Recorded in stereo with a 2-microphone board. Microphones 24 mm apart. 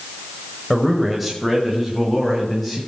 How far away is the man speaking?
About 1.5 m.